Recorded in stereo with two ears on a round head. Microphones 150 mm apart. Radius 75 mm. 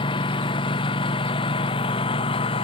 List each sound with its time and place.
0.0 s a lawn mower: 30° left (ahead or behind); by 2.6 s 35° left (ahead or behind)